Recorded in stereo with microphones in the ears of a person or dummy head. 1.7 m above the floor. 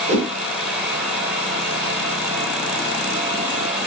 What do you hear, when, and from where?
0.1 s a whoosh: 55° right (ahead or behind), 0.7 m